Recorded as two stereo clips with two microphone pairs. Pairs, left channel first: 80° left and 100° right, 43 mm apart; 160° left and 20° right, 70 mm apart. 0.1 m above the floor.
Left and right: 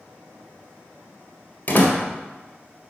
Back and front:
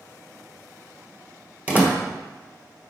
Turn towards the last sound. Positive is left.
turn(degrees=45)